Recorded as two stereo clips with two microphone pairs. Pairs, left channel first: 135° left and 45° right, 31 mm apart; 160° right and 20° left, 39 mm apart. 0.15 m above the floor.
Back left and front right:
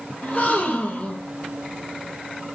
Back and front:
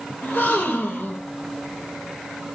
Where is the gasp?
170° left, 1.1 m.